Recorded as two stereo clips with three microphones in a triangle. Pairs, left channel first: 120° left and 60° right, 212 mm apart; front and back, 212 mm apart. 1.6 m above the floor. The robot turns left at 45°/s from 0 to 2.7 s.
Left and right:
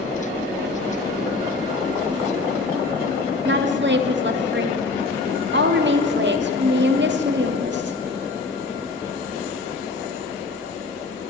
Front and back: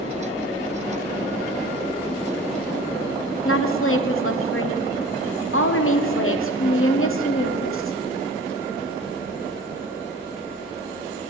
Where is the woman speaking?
20° right, 1.0 m.